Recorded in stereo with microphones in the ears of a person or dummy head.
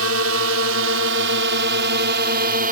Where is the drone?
75° right (ahead or behind); by 2.7 s 50° right (ahead or behind).